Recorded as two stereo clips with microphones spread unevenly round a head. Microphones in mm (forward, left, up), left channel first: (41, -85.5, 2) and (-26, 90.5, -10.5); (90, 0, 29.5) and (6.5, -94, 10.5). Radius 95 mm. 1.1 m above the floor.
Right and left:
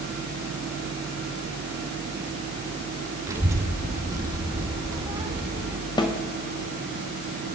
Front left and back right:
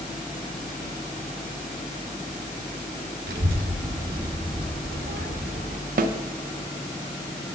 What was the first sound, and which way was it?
A child speaking, 175° right.